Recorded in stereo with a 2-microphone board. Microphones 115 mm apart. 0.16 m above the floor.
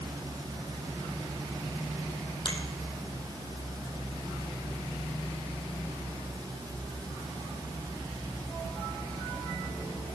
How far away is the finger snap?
About 4 m.